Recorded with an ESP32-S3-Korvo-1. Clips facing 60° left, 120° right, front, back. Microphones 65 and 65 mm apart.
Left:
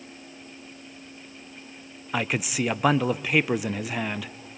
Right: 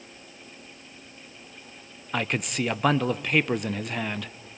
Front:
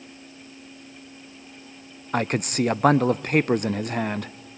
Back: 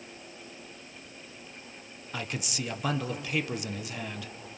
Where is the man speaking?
25° right, 0.6 m.